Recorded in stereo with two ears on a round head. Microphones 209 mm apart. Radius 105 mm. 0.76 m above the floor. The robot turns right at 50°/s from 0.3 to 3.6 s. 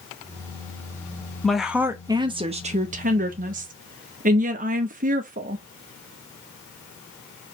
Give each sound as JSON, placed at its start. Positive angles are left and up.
{"t": 1.4, "sound": "a woman speaking", "azimuth_deg": 175, "distance_m": 0.7}